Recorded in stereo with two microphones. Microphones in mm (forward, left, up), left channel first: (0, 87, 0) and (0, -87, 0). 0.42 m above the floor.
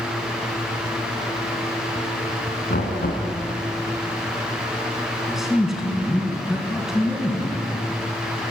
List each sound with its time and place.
2.7 s knocking: 55° left (ahead or behind), 4 m
5.3 s a man speaking: centre (ahead or behind), 4 m